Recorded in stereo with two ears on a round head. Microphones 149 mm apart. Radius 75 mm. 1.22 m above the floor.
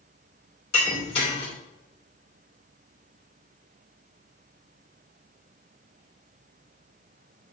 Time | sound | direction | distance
0.7 | breaking glass | 35° left (ahead or behind) | 3 m